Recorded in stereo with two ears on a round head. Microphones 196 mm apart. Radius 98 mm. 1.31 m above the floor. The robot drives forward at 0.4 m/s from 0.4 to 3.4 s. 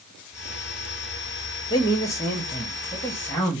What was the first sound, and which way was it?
A man speaking, 20° left (ahead or behind).